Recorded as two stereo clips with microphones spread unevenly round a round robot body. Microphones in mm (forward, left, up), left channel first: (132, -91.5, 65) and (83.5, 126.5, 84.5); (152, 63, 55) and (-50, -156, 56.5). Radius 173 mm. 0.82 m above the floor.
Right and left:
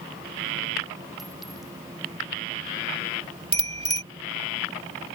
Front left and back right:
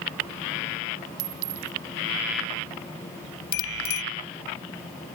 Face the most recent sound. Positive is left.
turn(degrees=40)